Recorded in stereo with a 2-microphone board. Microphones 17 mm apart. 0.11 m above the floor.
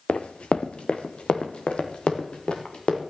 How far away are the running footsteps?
About 1.1 m.